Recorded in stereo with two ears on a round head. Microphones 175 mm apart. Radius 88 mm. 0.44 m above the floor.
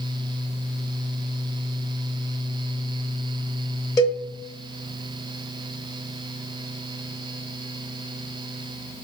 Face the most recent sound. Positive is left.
turn(degrees=15)  # may be behind; listen again after turning